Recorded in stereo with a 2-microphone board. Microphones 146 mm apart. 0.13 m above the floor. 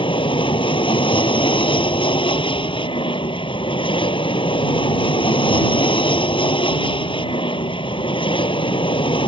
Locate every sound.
0.0 s an aircraft: 35° left (ahead or behind)